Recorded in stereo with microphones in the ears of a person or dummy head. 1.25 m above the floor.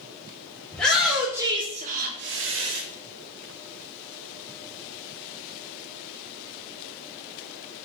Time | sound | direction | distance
0.7 | a shout | 5° left (ahead or behind) | 1.0 m